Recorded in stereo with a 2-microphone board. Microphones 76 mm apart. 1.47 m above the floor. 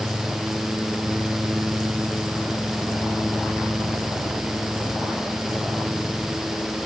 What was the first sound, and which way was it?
Only background noise.